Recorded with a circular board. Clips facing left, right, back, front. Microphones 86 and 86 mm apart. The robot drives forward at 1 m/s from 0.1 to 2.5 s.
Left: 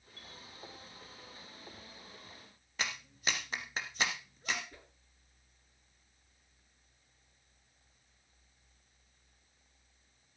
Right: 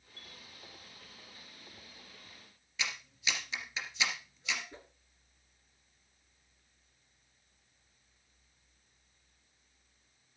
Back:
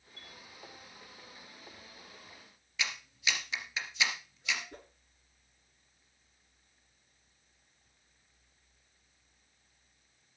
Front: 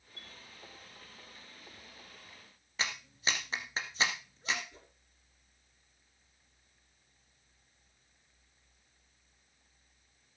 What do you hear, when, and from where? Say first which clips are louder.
0.2 s a chime: left 1 dB, even; 45° right, 1.2 m; by 0.3 s 55° right, 1.1 m
2.8 s a clap: left 1 dB, front 1 dB; 50° left, 2 m
4.7 s a whoosh: right 4 dB, back 7 dB; 155° right, 1.9 m